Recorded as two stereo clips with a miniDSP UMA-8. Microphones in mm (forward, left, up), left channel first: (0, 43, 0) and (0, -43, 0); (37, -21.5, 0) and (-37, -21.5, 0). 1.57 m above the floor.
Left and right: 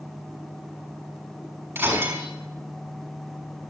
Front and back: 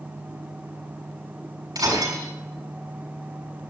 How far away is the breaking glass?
About 6 m.